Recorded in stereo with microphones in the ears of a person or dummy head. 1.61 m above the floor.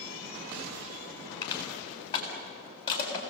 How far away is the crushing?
About 7 m.